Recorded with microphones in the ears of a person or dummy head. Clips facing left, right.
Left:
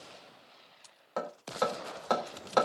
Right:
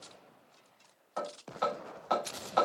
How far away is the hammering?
About 4 m.